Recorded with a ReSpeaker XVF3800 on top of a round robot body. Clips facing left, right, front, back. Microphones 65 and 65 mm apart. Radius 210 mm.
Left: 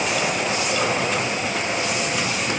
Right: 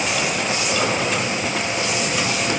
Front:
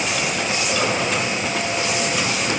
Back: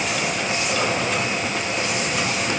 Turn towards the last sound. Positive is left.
No sound to turn to.